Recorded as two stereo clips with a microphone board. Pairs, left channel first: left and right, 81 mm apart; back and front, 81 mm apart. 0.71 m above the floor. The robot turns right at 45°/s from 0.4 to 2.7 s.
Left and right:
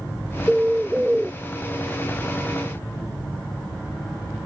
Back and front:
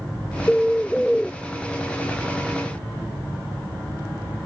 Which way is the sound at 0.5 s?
140° right.